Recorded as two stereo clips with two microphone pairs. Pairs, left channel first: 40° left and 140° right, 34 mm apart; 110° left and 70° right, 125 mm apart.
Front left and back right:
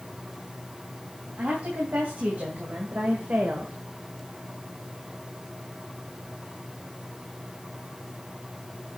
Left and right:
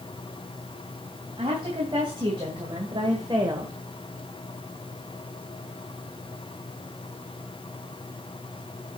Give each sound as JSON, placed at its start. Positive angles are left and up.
{"t": 1.4, "sound": "a woman speaking", "azimuth_deg": -115, "distance_m": 3.0}